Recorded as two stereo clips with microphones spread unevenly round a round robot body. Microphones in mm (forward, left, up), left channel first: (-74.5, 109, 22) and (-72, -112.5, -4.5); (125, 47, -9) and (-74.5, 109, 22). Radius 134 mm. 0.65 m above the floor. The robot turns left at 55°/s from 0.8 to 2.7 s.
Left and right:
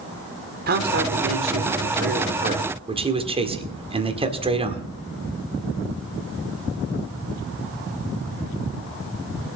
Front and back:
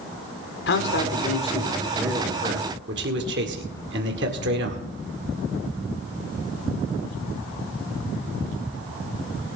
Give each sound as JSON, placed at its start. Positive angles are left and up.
{"t": 0.7, "sound": "a man speaking", "azimuth_deg": -45, "distance_m": 1.9}